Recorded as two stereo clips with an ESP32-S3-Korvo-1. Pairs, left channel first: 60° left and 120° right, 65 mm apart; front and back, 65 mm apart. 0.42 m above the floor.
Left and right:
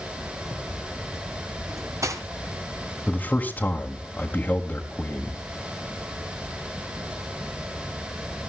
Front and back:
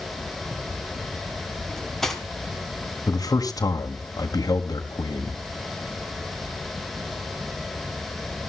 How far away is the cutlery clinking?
About 2.5 m.